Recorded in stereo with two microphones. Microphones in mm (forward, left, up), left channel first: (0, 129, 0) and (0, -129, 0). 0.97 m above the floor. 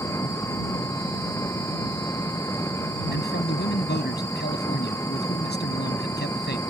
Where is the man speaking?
40° left (ahead or behind).